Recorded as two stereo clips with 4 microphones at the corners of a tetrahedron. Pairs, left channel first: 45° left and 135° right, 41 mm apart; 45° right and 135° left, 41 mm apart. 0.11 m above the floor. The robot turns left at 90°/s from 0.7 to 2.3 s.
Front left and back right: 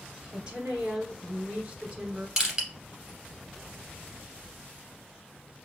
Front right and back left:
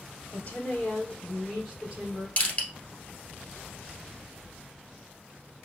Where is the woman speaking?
75° right, 1.8 m; by 2.3 s 145° left, 1.8 m.